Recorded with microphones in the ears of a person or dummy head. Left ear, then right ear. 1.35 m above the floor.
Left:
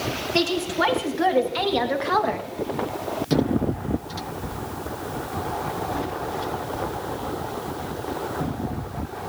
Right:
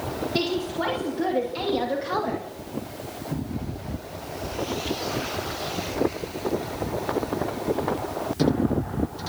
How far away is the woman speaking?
About 3.5 m.